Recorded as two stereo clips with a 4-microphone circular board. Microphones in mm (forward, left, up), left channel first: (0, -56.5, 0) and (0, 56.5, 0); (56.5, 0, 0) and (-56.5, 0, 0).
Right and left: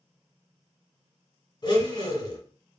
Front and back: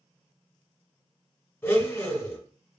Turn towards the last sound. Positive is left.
turn(degrees=-65)